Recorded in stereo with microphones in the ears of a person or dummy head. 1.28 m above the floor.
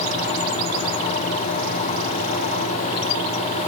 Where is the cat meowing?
No cat meowing in this recording.